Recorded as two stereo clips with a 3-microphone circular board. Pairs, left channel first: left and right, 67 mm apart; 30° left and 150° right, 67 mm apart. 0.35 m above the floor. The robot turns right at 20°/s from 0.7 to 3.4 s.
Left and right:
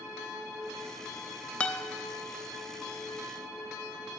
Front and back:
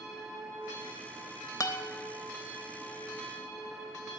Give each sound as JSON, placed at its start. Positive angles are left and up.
{"t": 1.6, "sound": "a guitar", "azimuth_deg": 20, "distance_m": 0.7}